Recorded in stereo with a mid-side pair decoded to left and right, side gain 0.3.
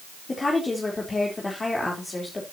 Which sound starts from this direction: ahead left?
A woman speaking, at 0.3 s.